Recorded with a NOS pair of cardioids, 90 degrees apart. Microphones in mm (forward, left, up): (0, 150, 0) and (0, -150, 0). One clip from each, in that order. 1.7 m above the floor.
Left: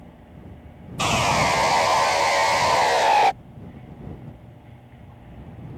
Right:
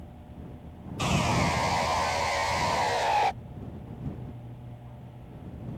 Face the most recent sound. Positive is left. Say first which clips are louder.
# left 7 dB
turn(degrees=30)